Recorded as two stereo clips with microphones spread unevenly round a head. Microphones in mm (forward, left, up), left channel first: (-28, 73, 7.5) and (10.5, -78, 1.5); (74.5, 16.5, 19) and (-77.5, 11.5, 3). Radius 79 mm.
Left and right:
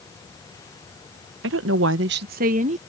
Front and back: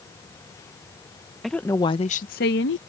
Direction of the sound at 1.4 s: 90° right.